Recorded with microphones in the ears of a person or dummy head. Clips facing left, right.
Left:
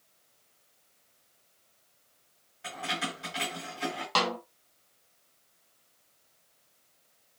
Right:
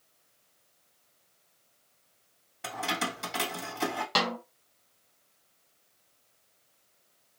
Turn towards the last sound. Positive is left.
turn(degrees=-20)  # may be behind; listen again after turning